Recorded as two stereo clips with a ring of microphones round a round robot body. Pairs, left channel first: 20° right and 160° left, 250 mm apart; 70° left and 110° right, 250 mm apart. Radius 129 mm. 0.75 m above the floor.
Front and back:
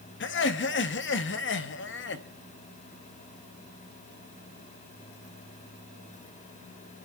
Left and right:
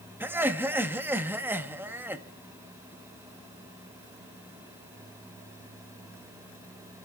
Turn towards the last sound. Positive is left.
turn(degrees=-35)